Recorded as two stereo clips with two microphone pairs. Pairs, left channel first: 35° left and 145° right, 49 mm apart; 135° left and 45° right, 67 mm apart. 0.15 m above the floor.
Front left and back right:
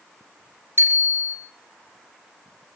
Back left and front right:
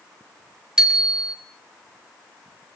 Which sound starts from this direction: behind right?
A bicycle bell, at 0.8 s.